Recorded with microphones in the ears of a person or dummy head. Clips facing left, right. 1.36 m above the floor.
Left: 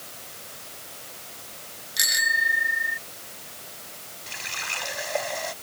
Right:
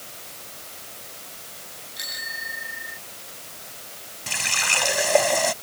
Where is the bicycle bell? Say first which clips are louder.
Left 10 dB; 65° left (ahead or behind); by 3.0 s 60° left (ahead or behind).